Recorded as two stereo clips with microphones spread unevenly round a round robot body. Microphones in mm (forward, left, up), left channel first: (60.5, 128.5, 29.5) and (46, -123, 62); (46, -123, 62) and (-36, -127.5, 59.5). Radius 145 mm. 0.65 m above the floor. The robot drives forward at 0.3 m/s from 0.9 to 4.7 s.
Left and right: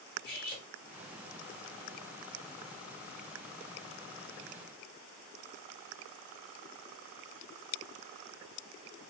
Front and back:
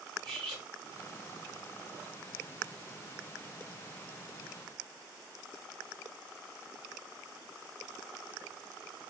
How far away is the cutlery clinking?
About 0.9 m.